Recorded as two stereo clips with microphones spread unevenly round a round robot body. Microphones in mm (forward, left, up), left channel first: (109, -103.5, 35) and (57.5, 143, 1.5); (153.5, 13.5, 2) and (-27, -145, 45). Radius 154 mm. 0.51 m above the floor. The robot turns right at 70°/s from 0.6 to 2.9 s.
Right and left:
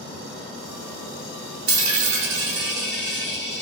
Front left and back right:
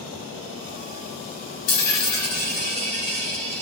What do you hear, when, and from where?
1.7 s a dropped coin: 65° left, 0.8 m; by 3.6 s 155° left, 0.8 m